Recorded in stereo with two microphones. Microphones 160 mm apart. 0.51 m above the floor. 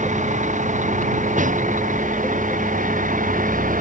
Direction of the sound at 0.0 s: 50° right (ahead or behind).